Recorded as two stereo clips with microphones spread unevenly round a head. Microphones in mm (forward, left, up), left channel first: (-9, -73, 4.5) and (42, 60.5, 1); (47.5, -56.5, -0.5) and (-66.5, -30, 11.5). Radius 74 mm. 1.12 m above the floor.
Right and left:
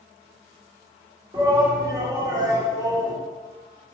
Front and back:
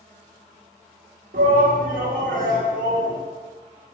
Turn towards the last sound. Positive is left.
turn(degrees=135)